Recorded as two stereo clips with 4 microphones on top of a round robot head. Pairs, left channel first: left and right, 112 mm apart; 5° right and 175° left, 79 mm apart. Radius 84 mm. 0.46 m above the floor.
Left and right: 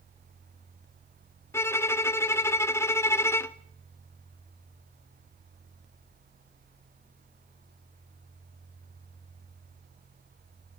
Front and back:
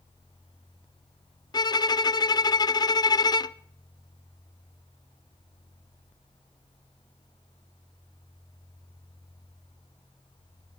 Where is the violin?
25° left, 0.5 m.